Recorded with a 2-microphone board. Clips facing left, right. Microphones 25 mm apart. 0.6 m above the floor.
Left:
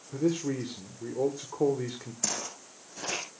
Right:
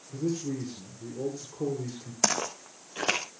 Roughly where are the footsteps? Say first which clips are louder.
Right 7 dB; right.